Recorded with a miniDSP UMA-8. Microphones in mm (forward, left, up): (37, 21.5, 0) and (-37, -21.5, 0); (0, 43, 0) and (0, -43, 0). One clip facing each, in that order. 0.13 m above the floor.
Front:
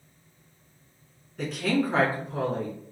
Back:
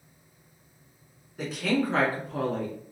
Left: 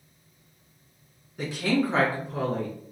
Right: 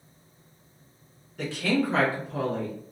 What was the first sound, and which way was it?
A woman speaking, 145° left.